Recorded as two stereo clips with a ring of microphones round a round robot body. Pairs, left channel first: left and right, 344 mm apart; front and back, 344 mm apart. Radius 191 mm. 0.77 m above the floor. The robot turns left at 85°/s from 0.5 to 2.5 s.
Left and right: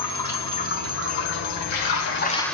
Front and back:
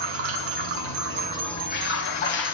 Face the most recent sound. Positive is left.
turn(degrees=0)